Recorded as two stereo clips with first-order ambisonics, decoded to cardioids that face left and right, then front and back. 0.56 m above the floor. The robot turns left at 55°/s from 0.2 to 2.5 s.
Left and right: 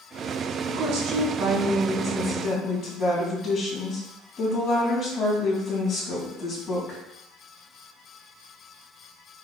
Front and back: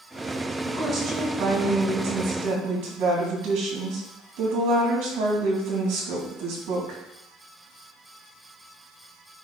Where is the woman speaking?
90° right, 3.5 m; by 7.0 s 170° left, 3.5 m.